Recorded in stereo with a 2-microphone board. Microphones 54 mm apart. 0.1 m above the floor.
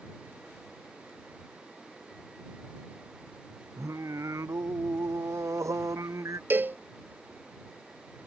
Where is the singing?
75° right (ahead or behind).